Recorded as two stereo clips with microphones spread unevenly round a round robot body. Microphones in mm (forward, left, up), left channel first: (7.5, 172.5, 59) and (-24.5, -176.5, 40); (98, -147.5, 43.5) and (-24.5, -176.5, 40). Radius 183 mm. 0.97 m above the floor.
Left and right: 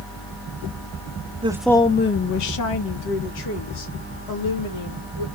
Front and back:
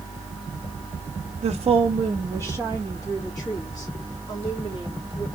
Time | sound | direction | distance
1.4 | a woman speaking | 165° right | 0.6 m